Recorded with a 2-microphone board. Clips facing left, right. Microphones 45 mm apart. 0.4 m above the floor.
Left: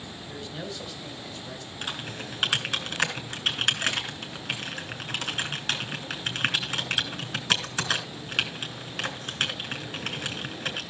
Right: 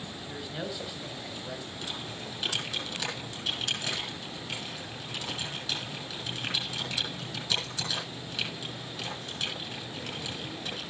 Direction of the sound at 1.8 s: 60° left (ahead or behind).